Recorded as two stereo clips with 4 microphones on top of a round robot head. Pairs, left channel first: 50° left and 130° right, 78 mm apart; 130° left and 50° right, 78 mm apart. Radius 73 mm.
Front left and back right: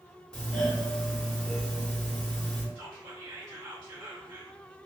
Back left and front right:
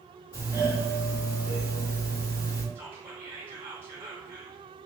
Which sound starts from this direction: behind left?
A doorbell, at 0.3 s.